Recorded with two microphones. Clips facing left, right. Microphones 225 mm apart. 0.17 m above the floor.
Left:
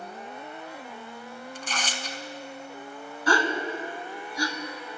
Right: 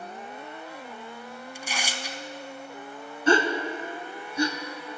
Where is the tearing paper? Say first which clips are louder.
Even; 10° right (ahead or behind), 0.5 m.